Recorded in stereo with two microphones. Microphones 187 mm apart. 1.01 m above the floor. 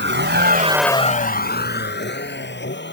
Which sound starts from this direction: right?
A vehicle, at 0.0 s.